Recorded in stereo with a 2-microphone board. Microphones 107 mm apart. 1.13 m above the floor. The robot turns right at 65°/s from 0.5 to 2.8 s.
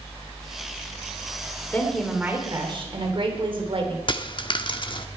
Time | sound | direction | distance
1.7 | a woman speaking | 160° left | 3 m
4.1 | a dropped coin | 45° left (ahead or behind) | 0.9 m